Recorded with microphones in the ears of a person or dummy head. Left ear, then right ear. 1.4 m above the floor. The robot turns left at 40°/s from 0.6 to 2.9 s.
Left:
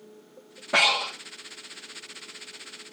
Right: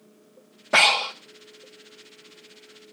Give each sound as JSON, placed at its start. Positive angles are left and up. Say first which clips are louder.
{"t": 0.7, "sound": "breathing", "louder": "right 3 dB", "side_deg": -20, "distance_m": 0.9}